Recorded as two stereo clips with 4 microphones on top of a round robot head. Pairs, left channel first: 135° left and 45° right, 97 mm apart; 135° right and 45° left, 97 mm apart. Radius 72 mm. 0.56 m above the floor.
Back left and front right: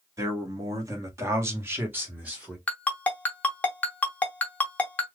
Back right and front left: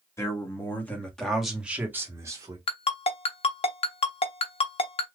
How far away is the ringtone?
About 0.9 m.